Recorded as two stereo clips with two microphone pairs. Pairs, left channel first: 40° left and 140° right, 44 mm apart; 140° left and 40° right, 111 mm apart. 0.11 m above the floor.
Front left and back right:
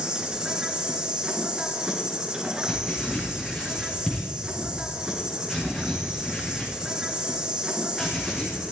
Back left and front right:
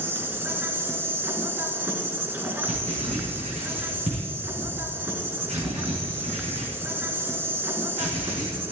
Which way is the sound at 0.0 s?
85° right.